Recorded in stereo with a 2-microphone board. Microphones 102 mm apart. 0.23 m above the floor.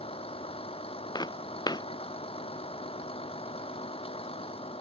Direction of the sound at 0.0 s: 65° left (ahead or behind).